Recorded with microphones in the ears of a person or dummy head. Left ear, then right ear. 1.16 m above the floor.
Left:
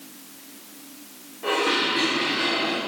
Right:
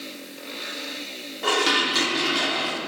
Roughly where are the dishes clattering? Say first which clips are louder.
Right 2 dB; right.